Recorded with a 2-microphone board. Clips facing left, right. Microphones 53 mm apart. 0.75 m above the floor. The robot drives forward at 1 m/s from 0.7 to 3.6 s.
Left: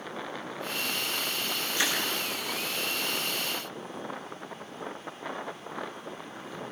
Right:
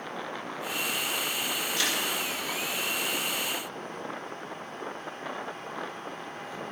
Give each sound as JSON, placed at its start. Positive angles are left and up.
{"t": 1.8, "sound": "crushing", "side_deg": 25, "distance_m": 8.5}